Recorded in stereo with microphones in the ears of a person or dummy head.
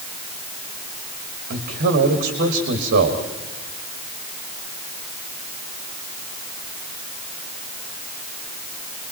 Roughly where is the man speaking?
Right.